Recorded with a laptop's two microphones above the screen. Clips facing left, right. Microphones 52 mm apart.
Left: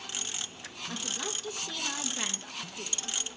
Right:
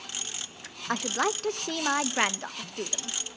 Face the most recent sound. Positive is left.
turn(degrees=-60)  # may be behind; listen again after turning